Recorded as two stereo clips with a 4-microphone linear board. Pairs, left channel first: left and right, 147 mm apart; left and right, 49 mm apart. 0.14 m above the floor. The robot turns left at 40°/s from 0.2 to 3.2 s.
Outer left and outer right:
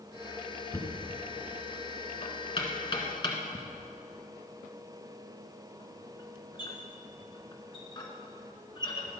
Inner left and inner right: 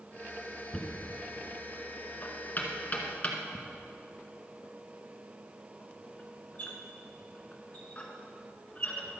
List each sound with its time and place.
0.7 s knocking: 15° left (ahead or behind), 1.7 m; by 9.2 s 30° left (ahead or behind), 1.7 m